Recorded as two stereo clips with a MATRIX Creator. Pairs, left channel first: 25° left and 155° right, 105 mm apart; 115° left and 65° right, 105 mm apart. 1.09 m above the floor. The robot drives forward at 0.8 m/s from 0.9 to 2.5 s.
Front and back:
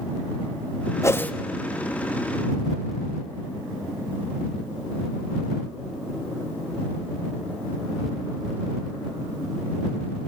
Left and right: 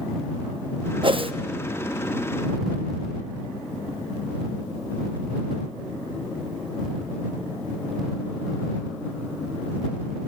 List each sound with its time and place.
1.0 s a whoosh: 35° right, 0.7 m; by 1.3 s 55° right, 0.6 m